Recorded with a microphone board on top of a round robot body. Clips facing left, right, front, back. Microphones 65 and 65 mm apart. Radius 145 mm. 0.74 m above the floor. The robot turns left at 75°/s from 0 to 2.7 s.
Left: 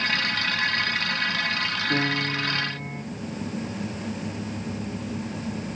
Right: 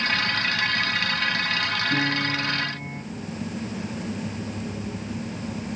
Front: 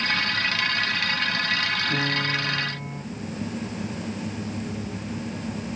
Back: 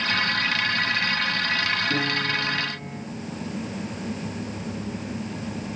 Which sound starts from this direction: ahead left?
A piano, at 1.9 s.